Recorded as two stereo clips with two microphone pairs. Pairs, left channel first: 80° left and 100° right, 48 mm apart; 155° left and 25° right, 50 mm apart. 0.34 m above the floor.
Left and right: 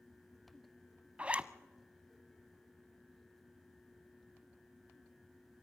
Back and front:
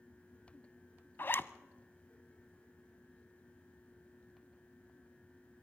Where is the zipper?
165° right, 0.5 m.